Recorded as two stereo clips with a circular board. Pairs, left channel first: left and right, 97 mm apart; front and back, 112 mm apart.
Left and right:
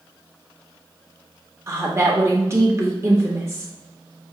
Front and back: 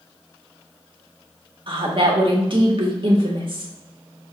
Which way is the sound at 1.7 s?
145° right.